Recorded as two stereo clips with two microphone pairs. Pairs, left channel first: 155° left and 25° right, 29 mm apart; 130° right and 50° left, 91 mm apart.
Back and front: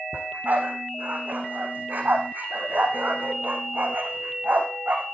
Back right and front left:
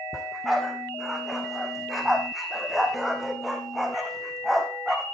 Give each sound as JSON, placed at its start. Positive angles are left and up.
{"t": 0.1, "sound": "a dog barking", "azimuth_deg": -35, "distance_m": 4.0}